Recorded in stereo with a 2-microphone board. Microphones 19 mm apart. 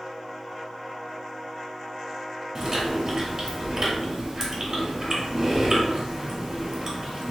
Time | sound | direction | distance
2.5 | chewing | 30° right (ahead or behind) | 1.6 m